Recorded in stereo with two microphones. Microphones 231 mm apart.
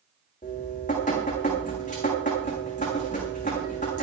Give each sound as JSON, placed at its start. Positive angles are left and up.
{"t": 0.4, "sound": "dripping", "side_deg": 35, "distance_m": 7.5}